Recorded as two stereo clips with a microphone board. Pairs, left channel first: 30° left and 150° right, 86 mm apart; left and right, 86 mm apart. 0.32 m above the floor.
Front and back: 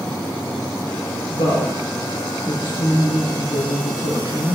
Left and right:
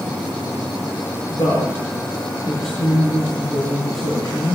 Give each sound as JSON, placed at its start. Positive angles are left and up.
{"t": 1.3, "sound": "a woman speaking", "azimuth_deg": 45, "distance_m": 8.0}